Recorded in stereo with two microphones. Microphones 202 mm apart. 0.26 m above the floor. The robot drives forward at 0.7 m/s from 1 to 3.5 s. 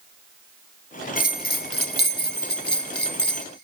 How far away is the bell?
About 2.5 m.